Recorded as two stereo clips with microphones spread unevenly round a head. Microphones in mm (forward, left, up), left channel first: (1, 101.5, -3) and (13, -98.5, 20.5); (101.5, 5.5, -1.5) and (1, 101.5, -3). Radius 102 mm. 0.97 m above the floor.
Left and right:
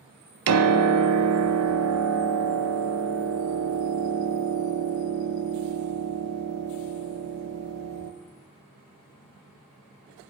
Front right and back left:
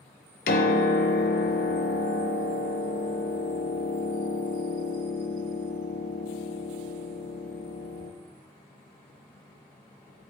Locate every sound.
0.5 s a piano: 80° right, 0.6 m